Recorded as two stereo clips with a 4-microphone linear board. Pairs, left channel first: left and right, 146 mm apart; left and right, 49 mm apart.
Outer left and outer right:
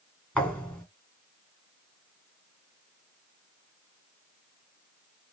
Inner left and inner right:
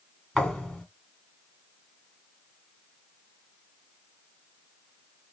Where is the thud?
10° left (ahead or behind), 1.7 m.